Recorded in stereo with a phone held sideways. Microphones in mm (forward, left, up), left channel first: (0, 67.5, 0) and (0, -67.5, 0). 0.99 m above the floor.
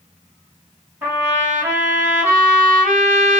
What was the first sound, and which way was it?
A trumpet, 15° right (ahead or behind).